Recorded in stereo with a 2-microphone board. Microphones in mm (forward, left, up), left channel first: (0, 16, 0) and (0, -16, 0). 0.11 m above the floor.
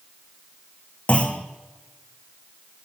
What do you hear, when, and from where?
1.1 s a clunk: 40° left (ahead or behind), 1.4 m